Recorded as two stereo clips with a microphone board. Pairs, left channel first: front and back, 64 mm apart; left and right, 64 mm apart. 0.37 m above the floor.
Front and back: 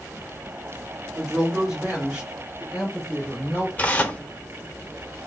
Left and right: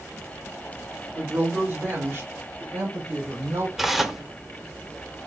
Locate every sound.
1.1 s a woman speaking: 110° right, 1.6 m; by 3.7 s 105° right, 3 m
3.8 s tearing paper: 10° right, 0.6 m